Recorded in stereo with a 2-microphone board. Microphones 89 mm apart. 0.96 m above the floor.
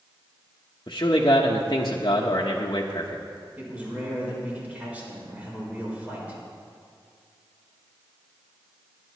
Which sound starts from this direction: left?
A man speaking, at 0.9 s.